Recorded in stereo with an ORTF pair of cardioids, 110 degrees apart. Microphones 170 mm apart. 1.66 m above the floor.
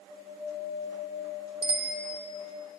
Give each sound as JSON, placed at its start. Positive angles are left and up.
{"t": 1.6, "sound": "a bicycle bell", "azimuth_deg": -35, "distance_m": 2.0}